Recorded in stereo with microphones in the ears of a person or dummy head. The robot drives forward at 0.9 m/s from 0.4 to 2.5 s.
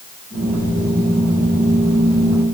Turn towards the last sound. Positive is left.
No sound to turn to.